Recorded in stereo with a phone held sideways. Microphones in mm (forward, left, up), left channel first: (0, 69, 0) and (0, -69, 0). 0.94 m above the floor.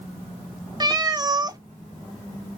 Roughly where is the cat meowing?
Right.